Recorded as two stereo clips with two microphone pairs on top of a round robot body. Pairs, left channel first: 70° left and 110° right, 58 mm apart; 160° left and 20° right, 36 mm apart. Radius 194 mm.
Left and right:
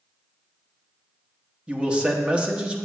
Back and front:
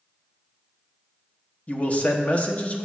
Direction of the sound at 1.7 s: 175° right.